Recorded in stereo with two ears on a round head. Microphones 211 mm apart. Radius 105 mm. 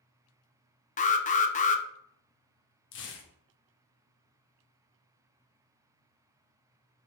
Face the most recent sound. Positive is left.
turn(degrees=55)  # may be behind; listen again after turning